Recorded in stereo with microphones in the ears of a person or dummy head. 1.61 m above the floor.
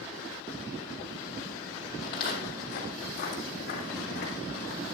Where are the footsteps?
35° left (ahead or behind), 2.5 m; by 4.8 s 50° left (ahead or behind), 4 m.